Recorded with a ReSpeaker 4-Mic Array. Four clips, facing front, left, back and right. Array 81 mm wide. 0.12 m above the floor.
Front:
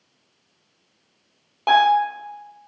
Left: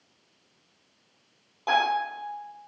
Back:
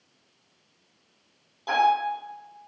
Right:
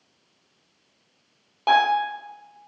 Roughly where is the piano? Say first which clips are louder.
Right 5 dB, front 6 dB; ahead right.